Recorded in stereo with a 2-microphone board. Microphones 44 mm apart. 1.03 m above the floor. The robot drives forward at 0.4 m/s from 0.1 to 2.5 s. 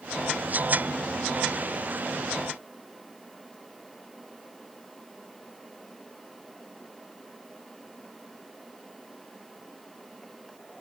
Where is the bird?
No bird in this recording.